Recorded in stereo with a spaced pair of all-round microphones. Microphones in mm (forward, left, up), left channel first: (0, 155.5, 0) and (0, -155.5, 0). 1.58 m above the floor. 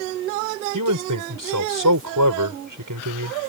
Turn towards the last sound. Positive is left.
turn(degrees=-85)